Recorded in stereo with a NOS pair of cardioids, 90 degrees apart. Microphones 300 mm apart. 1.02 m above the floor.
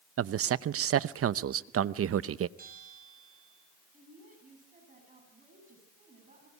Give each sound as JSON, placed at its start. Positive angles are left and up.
{"t": 0.2, "sound": "a man speaking", "azimuth_deg": -50, "distance_m": 0.8}
{"t": 2.6, "sound": "a bell", "azimuth_deg": -30, "distance_m": 7.5}
{"t": 3.9, "sound": "a woman speaking", "azimuth_deg": -25, "distance_m": 9.5}